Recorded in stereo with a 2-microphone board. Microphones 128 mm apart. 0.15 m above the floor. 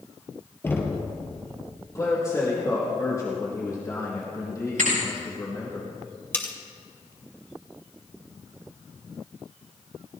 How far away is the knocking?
About 2.5 m.